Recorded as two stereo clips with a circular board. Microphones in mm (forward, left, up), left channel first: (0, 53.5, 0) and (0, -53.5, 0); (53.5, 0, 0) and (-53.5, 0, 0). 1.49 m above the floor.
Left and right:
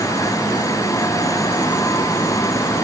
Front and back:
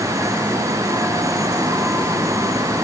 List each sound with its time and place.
Only background noise.